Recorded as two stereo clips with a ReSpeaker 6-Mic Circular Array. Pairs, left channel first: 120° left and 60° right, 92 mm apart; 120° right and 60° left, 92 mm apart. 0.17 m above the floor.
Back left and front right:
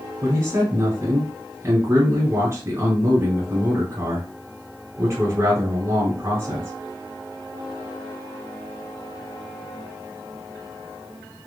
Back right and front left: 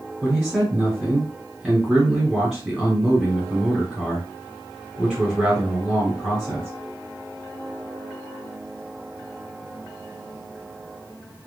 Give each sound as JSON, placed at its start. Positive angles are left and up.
{"t": 0.2, "sound": "a man speaking", "azimuth_deg": -35, "distance_m": 1.1}